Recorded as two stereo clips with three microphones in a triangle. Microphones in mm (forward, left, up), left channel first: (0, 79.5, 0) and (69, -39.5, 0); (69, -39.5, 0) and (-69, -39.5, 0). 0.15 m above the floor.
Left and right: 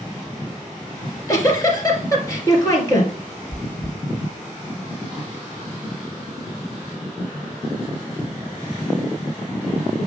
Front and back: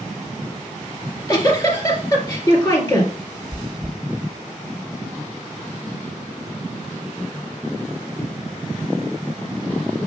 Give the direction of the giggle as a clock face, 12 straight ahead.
10 o'clock.